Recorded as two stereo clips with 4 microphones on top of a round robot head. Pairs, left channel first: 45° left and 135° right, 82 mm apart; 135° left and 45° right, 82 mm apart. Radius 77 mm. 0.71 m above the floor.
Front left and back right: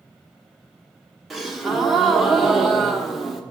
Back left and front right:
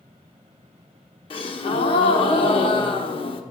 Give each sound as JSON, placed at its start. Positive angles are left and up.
{"t": 1.3, "sound": "a gasp", "azimuth_deg": 135, "distance_m": 0.9}